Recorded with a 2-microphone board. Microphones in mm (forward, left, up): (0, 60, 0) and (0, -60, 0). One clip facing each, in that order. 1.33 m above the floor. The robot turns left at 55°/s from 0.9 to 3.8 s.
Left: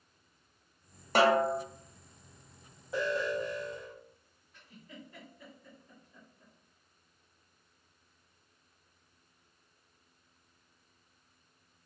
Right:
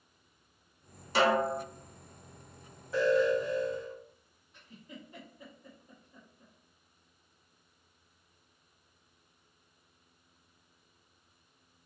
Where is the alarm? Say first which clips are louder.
Right 6 dB; 160° left, 1.5 m; by 4.0 s 115° left, 1.5 m.